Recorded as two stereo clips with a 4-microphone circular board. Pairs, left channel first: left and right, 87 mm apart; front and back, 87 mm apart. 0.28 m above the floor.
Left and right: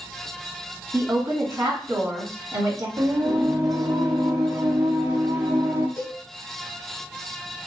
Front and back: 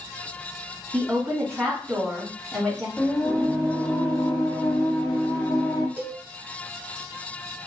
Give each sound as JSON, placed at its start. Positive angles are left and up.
{"t": 0.9, "sound": "a woman speaking", "azimuth_deg": -85, "distance_m": 1.8}
{"t": 3.0, "sound": "singing", "azimuth_deg": -60, "distance_m": 1.1}
{"t": 6.0, "sound": "a cowbell", "azimuth_deg": 130, "distance_m": 1.5}